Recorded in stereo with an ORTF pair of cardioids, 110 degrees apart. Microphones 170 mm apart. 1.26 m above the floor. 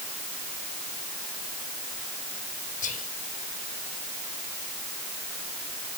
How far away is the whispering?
About 6 m.